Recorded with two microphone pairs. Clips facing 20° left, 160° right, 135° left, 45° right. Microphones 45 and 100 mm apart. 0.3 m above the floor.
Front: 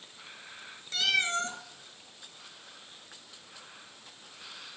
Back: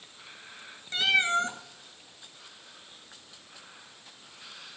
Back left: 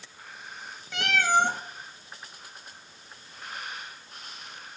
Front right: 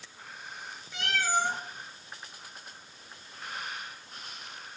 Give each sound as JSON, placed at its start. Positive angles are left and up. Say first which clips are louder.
{"t": 0.9, "sound": "a cat meowing", "louder": "back 4 dB, back left 6 dB", "azimuth_deg": 135, "distance_m": 0.9}